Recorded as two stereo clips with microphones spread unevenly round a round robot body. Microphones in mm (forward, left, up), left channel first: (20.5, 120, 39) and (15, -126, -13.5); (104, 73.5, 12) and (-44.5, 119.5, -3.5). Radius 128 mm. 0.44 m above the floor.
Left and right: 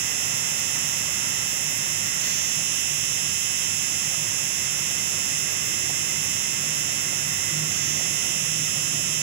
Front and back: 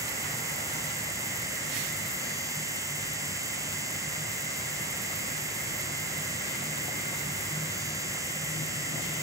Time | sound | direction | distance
0.0 | an insect | 120° right | ?